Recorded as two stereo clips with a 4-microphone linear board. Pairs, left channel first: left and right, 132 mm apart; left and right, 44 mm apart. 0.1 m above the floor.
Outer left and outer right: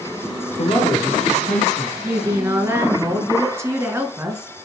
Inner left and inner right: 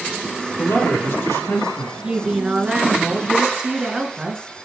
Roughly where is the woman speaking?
Right.